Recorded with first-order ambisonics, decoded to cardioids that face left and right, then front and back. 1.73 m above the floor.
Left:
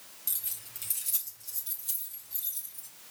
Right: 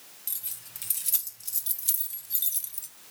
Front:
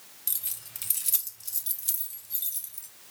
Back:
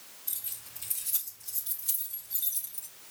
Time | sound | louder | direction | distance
0.3 | keys jangling | left 1 dB, front 5 dB | 10° left | 1.2 m